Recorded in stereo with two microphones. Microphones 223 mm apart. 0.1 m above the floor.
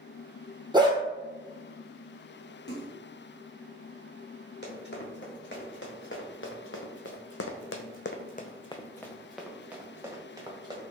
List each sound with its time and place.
0.7 s a dog barking: 20° right (ahead or behind), 0.9 m
2.7 s a splash: 50° left (ahead or behind), 1.0 m
4.6 s running footsteps: 55° left (ahead or behind), 1.9 m; by 10.8 s 20° right (ahead or behind), 1.5 m